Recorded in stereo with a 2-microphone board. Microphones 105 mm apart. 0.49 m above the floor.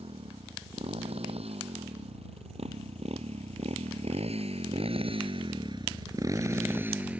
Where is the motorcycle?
70° right (ahead or behind); by 7.2 s 10° right (ahead or behind).